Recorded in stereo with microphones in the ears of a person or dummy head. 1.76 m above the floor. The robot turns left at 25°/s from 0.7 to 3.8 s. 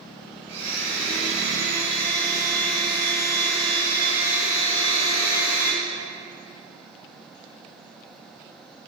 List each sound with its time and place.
0.5 s a blender: 75° right, 2.5 m; by 5.8 s 155° right, 2.5 m